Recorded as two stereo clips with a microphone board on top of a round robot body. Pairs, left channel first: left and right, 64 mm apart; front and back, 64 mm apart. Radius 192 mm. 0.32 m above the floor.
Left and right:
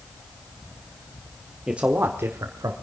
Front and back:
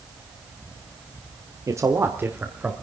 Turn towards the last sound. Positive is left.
turn(degrees=-110)